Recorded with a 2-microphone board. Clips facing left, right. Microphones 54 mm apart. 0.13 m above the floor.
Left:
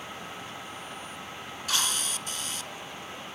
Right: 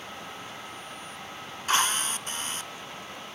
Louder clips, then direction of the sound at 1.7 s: Right 6 dB; 35° right (ahead or behind).